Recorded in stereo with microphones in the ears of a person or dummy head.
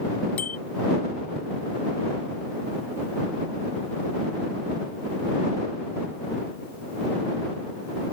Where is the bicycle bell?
10° left (ahead or behind).